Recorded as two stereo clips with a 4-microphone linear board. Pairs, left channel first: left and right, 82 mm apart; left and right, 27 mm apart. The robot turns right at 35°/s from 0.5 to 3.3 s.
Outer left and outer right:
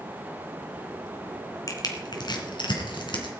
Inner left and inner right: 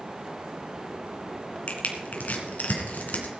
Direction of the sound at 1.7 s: 45° left (ahead or behind).